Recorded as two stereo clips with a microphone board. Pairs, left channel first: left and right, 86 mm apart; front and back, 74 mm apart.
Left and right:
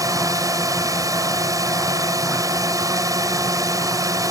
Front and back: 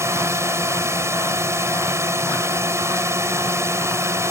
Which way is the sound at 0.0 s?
135° right.